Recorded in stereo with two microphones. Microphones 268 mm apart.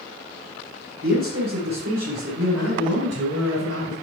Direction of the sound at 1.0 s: 65° right (ahead or behind).